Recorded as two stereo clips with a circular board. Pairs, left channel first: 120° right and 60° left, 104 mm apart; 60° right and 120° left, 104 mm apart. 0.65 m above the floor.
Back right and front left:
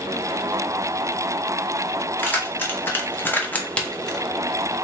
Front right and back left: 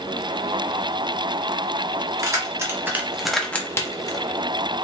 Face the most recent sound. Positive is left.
turn(degrees=-35)